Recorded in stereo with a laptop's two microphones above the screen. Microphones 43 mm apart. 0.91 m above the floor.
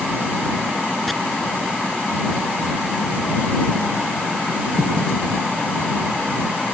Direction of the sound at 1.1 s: Centre (ahead or behind).